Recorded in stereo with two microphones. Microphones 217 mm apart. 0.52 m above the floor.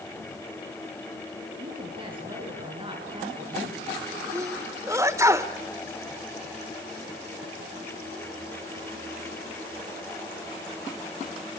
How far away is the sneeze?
About 1.6 m.